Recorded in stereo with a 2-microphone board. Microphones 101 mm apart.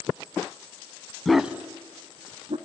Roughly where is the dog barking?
Centre.